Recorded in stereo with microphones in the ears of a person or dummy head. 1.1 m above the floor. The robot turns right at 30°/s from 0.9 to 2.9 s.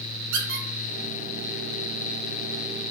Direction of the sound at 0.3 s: 75° right (ahead or behind).